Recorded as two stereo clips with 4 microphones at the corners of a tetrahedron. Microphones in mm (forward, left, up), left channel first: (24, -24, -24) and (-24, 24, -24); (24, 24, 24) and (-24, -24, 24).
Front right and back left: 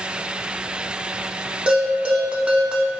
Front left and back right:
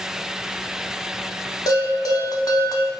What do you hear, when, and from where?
1.7 s a bell: 65° left, 0.5 m